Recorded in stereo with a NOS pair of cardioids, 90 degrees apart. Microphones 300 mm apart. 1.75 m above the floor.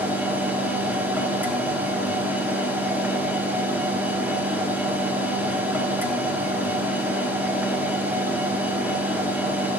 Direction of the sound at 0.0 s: 5° right.